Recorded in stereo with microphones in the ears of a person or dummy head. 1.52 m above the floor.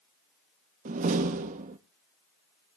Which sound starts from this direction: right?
A door slam, at 0.8 s.